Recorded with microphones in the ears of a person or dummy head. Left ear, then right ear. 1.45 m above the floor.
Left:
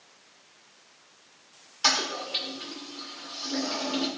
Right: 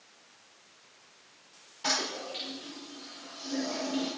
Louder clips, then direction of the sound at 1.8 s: Left 6 dB; 50° left (ahead or behind).